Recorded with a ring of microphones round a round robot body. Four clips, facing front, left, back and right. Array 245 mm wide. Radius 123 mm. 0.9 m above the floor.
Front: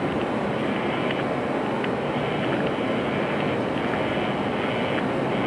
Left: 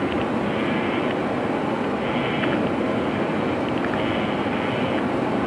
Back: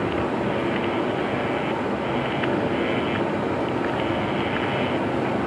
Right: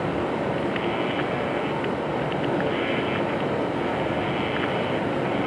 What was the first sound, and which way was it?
Running water, 100° left.